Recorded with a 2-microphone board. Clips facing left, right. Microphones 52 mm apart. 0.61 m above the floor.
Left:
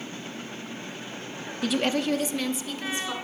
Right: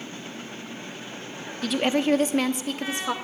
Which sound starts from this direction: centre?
A woman speaking, at 1.6 s.